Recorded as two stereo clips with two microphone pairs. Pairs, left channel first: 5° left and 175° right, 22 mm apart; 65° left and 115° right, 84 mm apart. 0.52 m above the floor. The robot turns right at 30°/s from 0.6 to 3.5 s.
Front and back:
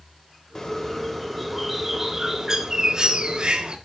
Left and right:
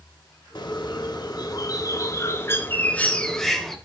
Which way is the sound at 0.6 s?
65° left.